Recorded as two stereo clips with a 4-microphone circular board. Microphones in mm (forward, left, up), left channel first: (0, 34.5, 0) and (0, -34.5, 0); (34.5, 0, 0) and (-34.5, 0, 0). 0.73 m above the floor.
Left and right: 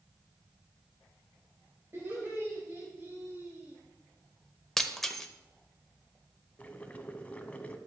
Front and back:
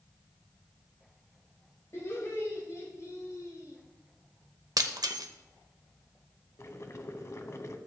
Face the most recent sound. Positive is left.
turn(degrees=25)